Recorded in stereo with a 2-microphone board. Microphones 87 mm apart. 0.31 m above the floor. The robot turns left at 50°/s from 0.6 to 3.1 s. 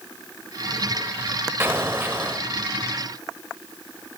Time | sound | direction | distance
1.6 | an explosion | 25° right (ahead or behind) | 0.9 m